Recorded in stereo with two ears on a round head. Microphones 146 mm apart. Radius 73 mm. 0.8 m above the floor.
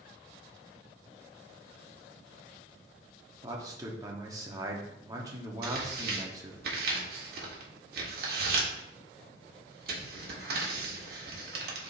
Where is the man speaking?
20° right (ahead or behind), 1.3 m.